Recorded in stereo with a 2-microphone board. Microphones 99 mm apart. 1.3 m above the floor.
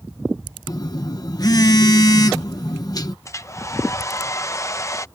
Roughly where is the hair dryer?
Left.